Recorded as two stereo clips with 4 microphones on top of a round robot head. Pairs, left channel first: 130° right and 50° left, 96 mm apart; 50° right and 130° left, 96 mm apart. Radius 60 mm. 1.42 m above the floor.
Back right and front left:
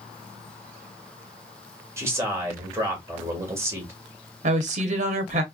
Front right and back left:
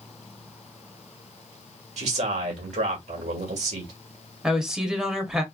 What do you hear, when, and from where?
2.0 s a man speaking: 120° left, 1.7 m
4.4 s a woman speaking: 45° left, 0.8 m